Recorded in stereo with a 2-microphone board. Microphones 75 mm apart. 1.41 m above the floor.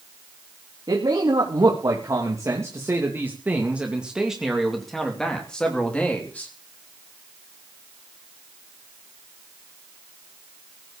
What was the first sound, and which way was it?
A man speaking, 65° right (ahead or behind).